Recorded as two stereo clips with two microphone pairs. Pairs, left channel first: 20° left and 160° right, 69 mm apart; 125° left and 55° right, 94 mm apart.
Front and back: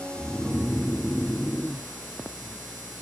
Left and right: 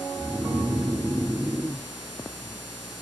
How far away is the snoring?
About 0.7 m.